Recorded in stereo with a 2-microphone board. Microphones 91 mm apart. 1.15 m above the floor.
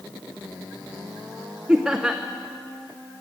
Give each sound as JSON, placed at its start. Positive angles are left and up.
{"t": 1.7, "sound": "laughter", "side_deg": -10, "distance_m": 0.5}